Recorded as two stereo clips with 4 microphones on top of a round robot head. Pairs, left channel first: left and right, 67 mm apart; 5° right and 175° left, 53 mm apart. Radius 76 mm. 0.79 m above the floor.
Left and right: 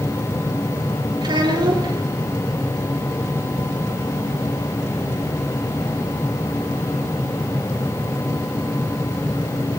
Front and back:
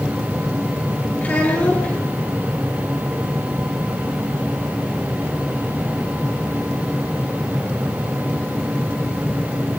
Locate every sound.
1.2 s a child speaking: 70° right, 9.5 m